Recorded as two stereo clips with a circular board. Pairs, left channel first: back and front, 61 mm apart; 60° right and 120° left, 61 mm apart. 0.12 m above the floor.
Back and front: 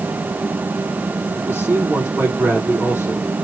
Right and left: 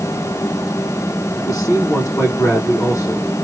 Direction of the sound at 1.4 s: 55° right.